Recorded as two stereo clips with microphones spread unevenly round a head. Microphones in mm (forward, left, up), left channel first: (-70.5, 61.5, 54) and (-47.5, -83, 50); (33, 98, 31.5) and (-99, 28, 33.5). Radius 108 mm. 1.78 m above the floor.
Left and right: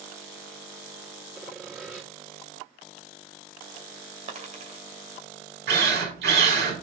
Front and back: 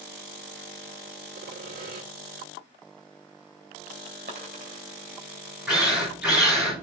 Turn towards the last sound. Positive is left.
turn(degrees=-65)